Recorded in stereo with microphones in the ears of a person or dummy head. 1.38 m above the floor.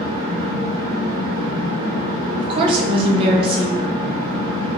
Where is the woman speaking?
35° right (ahead or behind), 0.7 m.